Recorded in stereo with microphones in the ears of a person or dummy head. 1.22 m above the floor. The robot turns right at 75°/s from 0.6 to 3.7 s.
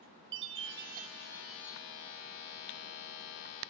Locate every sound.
0.3 s a chime: 70° right, 2.5 m; by 1.8 s 25° left, 2.5 m